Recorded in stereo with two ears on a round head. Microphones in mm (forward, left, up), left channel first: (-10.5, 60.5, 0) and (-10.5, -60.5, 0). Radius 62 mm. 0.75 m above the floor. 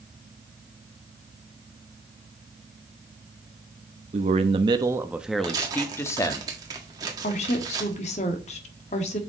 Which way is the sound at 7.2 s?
50° left (ahead or behind).